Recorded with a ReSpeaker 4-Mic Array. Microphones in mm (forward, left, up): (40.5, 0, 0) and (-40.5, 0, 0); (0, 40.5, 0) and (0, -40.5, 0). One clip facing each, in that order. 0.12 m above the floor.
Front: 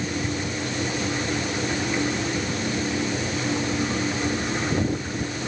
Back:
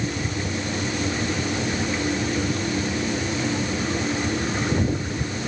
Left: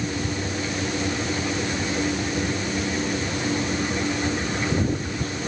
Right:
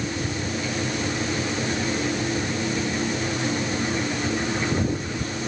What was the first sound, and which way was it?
Only background noise.